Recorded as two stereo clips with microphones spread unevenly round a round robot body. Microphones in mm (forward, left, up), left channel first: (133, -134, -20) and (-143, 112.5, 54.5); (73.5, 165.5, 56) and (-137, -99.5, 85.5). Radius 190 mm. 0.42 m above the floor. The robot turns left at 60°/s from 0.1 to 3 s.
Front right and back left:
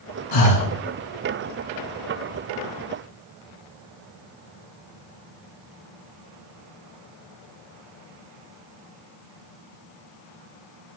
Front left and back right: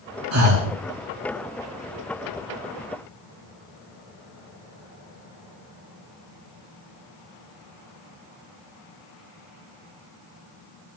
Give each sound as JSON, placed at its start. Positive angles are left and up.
{"t": 0.3, "sound": "breathing", "azimuth_deg": -75, "distance_m": 3.0}